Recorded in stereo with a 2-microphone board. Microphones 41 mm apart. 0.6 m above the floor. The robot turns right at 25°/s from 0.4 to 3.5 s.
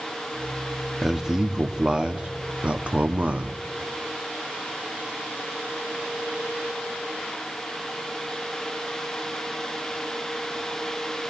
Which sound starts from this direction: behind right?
A man speaking, at 1.0 s.